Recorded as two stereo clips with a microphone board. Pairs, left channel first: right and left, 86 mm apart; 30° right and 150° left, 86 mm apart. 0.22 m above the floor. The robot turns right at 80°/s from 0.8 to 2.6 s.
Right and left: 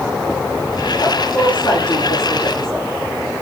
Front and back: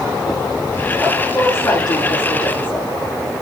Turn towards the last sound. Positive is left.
turn(degrees=-10)